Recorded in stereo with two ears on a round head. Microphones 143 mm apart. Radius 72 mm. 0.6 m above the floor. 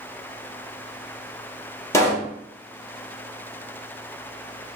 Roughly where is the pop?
Centre.